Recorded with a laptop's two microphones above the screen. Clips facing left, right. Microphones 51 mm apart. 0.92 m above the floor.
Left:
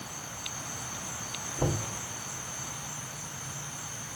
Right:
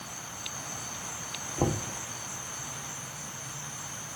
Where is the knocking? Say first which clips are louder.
Right 2 dB; 55° right (ahead or behind), 1.9 m.